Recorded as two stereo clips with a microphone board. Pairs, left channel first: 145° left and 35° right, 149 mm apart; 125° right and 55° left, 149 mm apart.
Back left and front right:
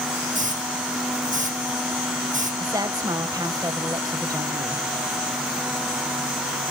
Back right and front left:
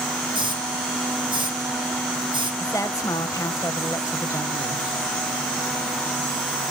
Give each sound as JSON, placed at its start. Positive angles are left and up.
{"t": 0.3, "sound": "a hiss", "azimuth_deg": 0, "distance_m": 4.0}
{"t": 2.6, "sound": "a woman speaking", "azimuth_deg": -75, "distance_m": 1.0}